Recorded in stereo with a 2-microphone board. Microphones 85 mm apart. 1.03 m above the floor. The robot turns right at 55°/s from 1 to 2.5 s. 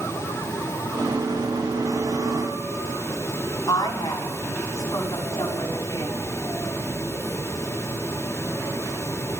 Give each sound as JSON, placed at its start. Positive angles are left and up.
{"t": 3.7, "sound": "a woman speaking", "side_deg": 50, "distance_m": 8.0}